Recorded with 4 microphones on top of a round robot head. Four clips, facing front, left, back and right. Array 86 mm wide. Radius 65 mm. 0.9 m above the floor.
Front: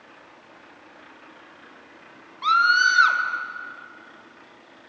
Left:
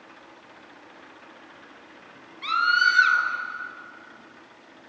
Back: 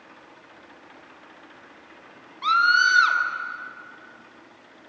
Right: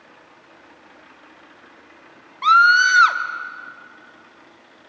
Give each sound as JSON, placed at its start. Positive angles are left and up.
{"t": 2.4, "sound": "a scream", "azimuth_deg": -85, "distance_m": 2.5}